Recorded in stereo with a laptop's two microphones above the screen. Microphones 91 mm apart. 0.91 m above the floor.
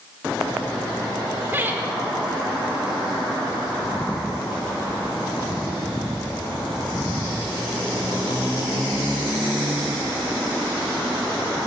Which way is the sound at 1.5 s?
25° right (ahead or behind).